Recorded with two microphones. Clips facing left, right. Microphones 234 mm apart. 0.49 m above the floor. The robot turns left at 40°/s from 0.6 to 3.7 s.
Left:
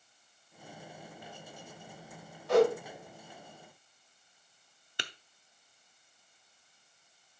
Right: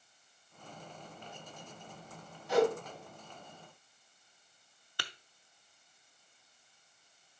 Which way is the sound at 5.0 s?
20° left (ahead or behind).